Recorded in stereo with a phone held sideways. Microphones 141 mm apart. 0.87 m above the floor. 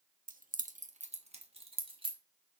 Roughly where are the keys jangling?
Right.